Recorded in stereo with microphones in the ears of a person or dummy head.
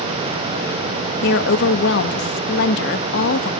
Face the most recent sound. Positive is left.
turn(degrees=65)  # may be behind; listen again after turning